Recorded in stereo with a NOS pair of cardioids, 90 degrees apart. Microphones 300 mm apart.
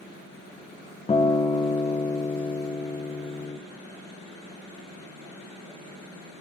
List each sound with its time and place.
1.1 s a guitar: 20° left, 0.7 m